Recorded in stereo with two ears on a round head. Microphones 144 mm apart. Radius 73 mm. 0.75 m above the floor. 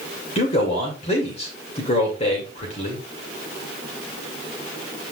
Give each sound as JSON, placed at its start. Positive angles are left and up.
{"t": 0.3, "sound": "a man speaking", "side_deg": 45, "distance_m": 2.5}